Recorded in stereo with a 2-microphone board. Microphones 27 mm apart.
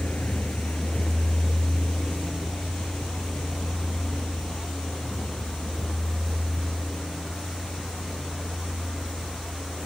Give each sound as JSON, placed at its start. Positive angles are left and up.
{"t": 0.0, "sound": "a vehicle", "side_deg": 80}